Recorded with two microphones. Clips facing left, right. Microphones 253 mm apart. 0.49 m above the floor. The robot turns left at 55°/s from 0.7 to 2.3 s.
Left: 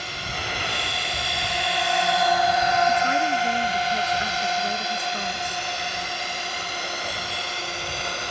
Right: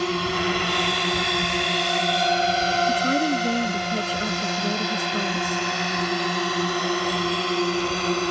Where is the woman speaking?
35° right (ahead or behind).